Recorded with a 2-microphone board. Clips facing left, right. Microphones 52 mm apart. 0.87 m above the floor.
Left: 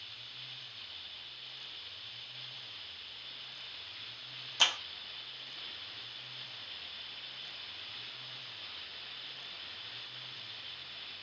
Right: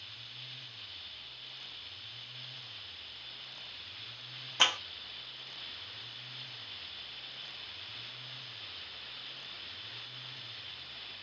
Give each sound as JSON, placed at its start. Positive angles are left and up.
{"t": 4.6, "sound": "a clap", "side_deg": -40, "distance_m": 1.0}